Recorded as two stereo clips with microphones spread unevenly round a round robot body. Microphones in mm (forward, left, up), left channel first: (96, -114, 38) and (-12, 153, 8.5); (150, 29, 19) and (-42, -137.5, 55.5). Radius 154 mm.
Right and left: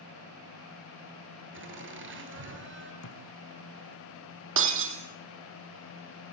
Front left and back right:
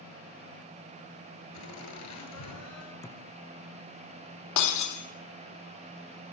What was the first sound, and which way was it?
Laughter, 65° left.